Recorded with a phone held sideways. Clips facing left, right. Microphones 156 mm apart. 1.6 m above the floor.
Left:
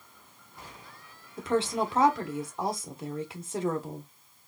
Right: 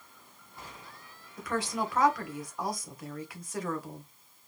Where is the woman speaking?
25° left (ahead or behind), 1.2 m.